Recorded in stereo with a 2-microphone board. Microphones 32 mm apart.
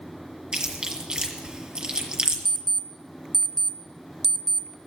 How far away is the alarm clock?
About 0.7 m.